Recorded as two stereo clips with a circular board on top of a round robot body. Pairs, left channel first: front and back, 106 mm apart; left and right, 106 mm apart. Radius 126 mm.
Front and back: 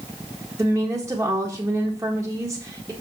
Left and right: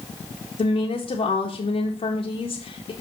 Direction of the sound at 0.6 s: 110° left.